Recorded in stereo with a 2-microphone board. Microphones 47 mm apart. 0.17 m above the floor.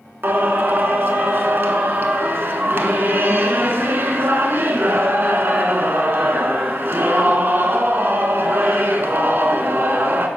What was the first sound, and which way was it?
Singing, 55° right (ahead or behind).